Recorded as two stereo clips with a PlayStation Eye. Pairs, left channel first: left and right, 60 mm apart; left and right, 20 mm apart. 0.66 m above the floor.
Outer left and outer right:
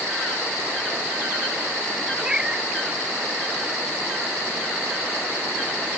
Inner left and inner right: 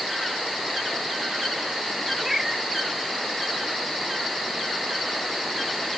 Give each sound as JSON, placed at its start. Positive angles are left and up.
{"t": 2.2, "sound": "a cat meowing", "side_deg": -15}